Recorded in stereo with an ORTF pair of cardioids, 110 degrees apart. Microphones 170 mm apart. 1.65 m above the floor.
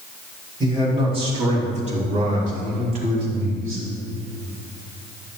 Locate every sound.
0.6 s a man speaking: 25° right, 3 m; by 3.9 s 60° right, 4.5 m